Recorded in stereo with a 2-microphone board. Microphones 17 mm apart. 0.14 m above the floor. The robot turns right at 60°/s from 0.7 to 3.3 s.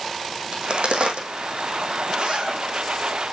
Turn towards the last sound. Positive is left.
turn(degrees=-45)